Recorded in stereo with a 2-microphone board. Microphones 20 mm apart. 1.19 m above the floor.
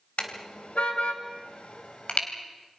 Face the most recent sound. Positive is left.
turn(degrees=65)  # may be behind; listen again after turning